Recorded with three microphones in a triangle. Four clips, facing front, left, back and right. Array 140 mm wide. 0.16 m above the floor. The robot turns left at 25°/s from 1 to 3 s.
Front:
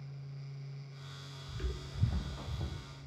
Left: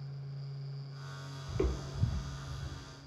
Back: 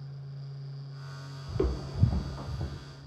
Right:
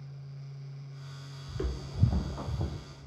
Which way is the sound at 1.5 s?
165° left.